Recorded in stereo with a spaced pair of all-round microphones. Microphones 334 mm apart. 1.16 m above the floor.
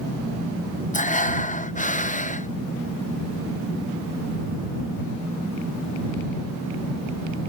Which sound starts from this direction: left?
Breathing, at 0.9 s.